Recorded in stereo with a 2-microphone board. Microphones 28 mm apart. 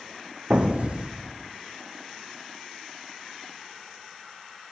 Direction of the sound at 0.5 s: 50° right (ahead or behind).